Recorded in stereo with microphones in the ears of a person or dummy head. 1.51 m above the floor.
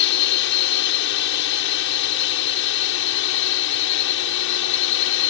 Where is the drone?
65° left (ahead or behind); by 5.3 s 70° left (ahead or behind).